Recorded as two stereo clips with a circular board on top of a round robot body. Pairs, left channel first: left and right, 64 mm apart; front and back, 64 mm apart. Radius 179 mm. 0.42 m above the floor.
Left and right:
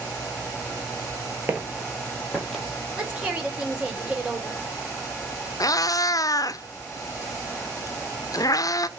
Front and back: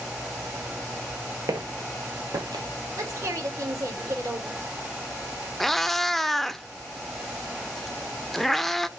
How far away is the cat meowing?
About 0.5 m.